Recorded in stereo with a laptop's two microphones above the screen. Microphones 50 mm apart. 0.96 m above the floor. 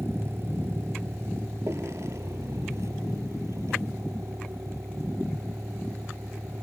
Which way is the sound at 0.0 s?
55° right (ahead or behind).